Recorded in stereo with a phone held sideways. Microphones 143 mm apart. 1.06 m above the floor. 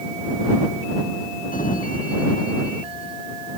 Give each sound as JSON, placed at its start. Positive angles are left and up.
{"t": 1.5, "sound": "a sliding door", "side_deg": 75}